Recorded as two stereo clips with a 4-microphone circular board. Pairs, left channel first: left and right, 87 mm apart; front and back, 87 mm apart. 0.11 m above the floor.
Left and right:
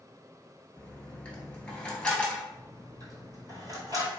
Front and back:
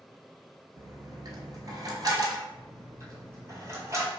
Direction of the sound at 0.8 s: 165° left.